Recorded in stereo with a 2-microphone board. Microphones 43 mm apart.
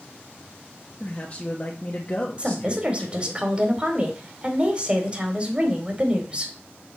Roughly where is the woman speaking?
Right.